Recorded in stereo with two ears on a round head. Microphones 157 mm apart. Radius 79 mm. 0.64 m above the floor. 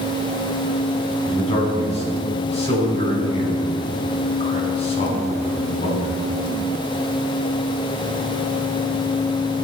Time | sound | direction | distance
1.2 | a man speaking | 35° left (ahead or behind) | 5 m